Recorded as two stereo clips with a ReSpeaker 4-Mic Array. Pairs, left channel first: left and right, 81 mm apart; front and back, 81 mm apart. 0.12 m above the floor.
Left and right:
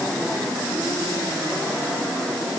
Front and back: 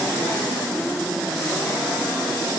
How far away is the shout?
No shout in this recording.